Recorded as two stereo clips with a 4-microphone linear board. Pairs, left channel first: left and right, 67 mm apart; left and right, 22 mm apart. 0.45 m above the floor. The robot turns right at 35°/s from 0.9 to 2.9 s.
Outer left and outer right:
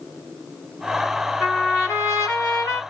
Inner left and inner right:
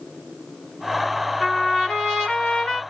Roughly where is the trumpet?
Ahead left.